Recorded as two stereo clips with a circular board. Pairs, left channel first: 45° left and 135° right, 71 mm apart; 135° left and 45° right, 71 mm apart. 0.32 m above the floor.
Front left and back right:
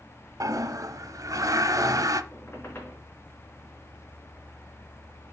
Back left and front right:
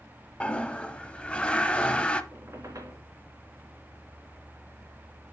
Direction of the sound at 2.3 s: 10° right.